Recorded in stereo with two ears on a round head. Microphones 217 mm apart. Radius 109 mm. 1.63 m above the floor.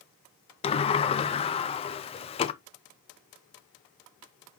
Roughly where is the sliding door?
Left.